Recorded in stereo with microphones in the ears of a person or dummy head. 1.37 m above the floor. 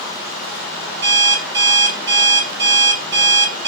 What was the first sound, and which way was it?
An alarm clock, 25° right (ahead or behind).